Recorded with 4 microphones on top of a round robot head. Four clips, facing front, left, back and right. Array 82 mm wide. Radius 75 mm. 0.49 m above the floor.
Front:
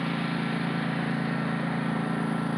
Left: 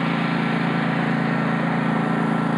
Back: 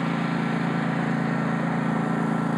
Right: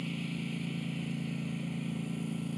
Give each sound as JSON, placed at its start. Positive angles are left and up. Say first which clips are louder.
{"t": 0.0, "sound": "a lawn mower", "louder": "left 16 dB, back 4 dB", "azimuth_deg": 105}